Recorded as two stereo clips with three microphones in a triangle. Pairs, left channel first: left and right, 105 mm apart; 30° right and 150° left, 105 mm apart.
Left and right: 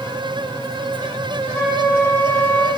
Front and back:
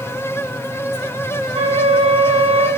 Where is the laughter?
I don't hear laughter.